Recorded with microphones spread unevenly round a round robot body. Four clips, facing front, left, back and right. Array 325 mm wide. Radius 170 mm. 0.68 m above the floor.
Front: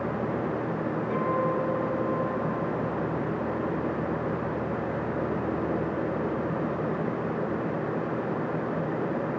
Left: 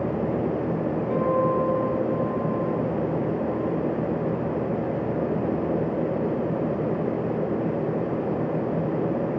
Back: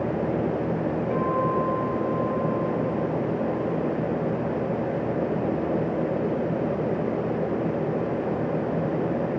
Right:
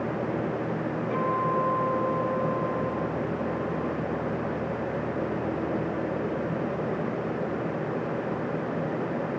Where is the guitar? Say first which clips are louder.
Left 4 dB, back 2 dB; 115° left, 10 m.